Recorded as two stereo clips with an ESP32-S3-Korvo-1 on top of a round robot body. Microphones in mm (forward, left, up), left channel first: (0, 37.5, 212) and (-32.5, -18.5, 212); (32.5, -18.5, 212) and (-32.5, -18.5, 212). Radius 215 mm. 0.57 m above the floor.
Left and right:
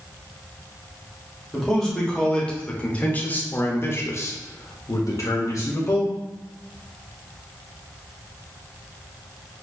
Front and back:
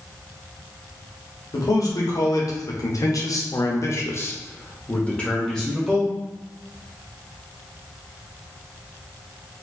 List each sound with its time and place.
1.5 s a man speaking: 25° right, 2 m; by 6.2 s 90° left, 1.6 m